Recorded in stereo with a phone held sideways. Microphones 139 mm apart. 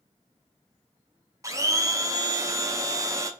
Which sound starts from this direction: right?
A blender, at 1.4 s.